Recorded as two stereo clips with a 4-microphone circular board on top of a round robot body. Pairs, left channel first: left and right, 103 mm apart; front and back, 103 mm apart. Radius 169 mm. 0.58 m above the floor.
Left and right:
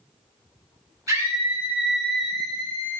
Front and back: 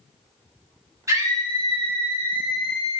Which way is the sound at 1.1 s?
135° right.